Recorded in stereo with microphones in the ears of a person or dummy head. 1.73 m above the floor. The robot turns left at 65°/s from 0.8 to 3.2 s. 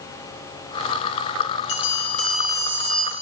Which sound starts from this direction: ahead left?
A bell, at 1.7 s.